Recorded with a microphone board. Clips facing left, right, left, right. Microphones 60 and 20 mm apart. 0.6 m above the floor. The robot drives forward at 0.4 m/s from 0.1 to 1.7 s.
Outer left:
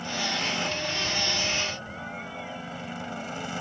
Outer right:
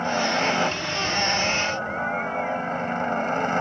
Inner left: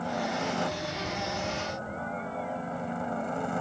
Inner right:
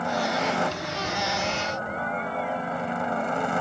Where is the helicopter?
40° right (ahead or behind); by 3.6 s 45° right (ahead or behind).